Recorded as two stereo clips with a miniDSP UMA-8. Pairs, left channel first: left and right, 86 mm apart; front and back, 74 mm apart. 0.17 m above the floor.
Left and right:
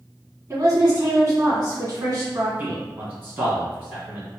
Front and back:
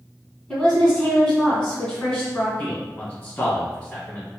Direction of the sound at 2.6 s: 50° right.